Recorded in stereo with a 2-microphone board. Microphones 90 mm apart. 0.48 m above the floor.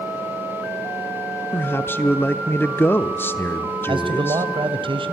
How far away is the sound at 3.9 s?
About 2.5 m.